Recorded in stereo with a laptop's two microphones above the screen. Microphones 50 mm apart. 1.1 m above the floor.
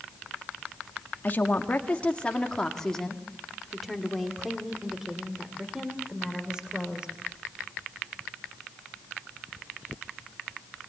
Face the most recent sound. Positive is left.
turn(degrees=-20)  # may be behind; listen again after turning